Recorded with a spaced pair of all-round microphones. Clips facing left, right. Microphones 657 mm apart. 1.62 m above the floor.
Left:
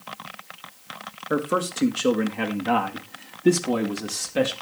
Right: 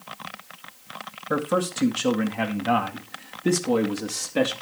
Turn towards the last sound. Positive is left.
turn(degrees=20)  # may be behind; listen again after turning